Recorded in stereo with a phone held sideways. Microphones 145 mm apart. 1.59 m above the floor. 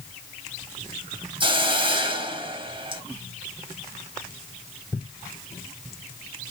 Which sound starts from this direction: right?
A hiss, at 1.4 s.